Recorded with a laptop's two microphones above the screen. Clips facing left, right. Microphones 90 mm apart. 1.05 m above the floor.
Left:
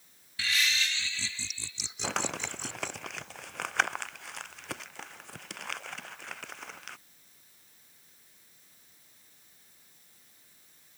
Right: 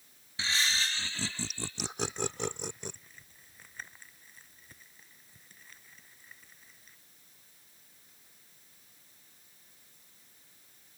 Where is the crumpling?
85° left.